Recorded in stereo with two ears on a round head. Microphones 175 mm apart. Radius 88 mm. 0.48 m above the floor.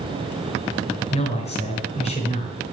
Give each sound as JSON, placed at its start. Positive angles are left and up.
{"t": 1.1, "sound": "a man speaking", "side_deg": 35, "distance_m": 4.5}